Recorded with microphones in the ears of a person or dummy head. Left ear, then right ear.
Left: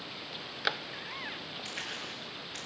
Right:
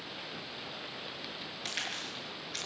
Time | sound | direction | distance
1.6 | a crack | 35° right (ahead or behind) | 7 m